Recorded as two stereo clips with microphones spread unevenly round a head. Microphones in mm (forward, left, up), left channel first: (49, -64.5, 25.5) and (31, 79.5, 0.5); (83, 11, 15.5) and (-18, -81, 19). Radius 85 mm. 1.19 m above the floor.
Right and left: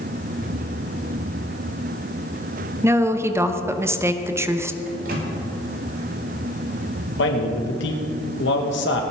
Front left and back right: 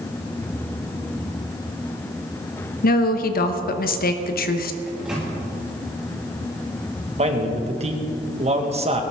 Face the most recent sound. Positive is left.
turn(degrees=-95)